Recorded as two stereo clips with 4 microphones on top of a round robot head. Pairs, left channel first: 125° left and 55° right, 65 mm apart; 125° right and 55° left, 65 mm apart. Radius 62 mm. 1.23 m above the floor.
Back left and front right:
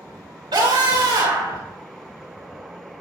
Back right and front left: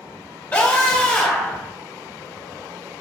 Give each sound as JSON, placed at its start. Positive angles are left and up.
{"t": 0.5, "sound": "a scream", "azimuth_deg": -55, "distance_m": 5.0}